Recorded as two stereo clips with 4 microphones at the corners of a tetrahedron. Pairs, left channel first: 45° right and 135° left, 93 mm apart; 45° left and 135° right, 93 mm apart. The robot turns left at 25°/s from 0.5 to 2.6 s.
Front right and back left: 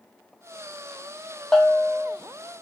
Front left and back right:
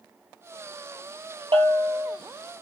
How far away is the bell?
About 1.4 m.